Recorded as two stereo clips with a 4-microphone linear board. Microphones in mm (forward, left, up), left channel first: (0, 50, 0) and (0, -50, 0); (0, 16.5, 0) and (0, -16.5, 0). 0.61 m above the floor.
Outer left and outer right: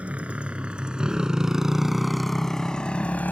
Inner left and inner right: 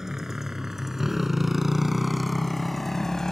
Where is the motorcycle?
15° right (ahead or behind); by 3.3 s 20° left (ahead or behind).